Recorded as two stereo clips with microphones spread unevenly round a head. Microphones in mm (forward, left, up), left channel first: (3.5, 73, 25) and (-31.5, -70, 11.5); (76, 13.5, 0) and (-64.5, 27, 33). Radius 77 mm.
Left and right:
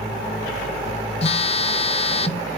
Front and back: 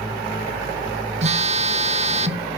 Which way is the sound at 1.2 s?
130° left.